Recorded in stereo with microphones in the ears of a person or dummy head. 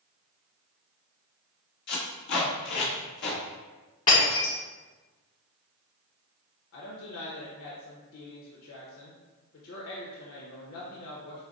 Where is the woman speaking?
65° left (ahead or behind), 0.9 m.